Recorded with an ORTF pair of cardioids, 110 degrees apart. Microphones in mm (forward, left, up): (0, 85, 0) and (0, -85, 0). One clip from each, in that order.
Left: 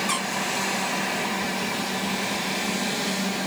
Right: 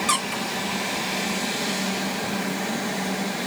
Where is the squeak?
60° right, 1.7 m.